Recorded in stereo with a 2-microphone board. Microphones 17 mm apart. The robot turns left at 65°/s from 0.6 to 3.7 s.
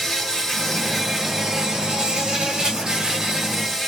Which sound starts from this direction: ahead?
An insect, at 0.0 s.